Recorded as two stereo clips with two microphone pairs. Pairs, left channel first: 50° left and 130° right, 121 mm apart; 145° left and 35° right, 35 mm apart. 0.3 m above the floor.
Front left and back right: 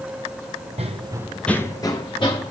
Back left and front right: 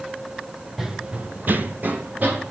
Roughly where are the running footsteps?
Behind right.